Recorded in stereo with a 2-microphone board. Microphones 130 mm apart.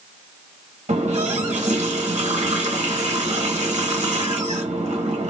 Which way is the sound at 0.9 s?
65° right (ahead or behind).